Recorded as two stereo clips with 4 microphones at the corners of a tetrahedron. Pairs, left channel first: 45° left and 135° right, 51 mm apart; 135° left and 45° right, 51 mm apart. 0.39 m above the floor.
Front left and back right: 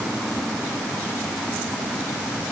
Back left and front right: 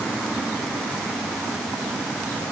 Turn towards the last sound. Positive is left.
No sound to turn to.